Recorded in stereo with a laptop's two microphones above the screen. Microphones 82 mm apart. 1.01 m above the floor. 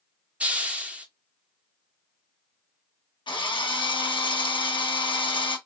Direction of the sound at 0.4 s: 15° right (ahead or behind).